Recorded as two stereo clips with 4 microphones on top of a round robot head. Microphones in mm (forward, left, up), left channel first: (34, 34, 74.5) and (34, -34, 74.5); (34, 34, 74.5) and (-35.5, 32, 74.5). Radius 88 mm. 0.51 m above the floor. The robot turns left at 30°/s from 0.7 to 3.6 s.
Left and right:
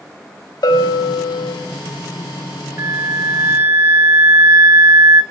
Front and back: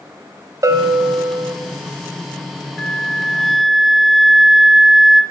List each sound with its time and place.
0.6 s a bell: 135° left, 1.2 m; by 1.5 s 110° left, 1.2 m
2.8 s a flute: 70° right, 1.5 m; by 5.2 s 95° right, 1.5 m